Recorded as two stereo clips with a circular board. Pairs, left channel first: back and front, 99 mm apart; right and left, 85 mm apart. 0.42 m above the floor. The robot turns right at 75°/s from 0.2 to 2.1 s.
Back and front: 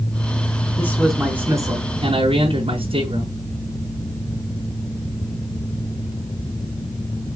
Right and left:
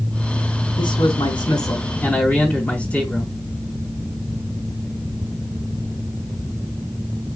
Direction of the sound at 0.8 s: 120° right.